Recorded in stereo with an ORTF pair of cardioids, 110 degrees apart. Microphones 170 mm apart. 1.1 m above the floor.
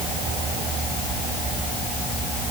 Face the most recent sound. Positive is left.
No sound to turn to.